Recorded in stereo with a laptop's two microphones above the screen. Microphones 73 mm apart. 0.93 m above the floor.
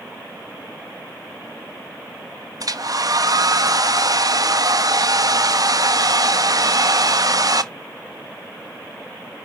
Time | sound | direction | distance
2.6 | a hair dryer | 55° right (ahead or behind) | 1.0 m